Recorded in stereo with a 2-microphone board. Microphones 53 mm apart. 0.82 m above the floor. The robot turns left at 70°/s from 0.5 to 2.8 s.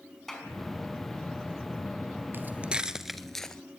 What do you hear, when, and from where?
0.3 s a clap: 5° left (ahead or behind), 5 m
2.3 s footsteps: 40° right (ahead or behind), 1.1 m; by 3.6 s 10° left (ahead or behind), 1.1 m